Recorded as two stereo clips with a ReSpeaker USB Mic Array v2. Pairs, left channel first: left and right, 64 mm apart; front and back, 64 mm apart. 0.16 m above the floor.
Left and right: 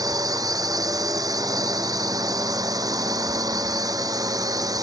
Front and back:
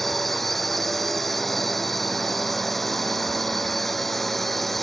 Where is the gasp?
I don't hear a gasp.